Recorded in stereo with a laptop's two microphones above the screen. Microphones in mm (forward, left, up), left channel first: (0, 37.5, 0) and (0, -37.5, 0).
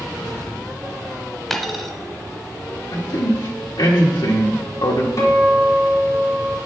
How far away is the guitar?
About 1.7 m.